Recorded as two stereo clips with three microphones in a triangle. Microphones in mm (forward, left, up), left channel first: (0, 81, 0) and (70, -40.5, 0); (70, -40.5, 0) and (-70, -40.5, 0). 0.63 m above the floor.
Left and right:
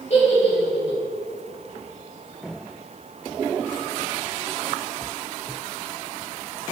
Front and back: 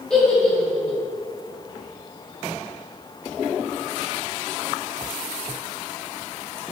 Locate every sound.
0.1 s a giggle: 85° left, 2 m